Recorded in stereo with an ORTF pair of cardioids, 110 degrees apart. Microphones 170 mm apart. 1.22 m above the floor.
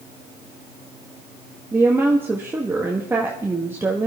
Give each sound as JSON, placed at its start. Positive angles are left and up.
{"t": 1.7, "sound": "a woman speaking", "azimuth_deg": -10, "distance_m": 1.4}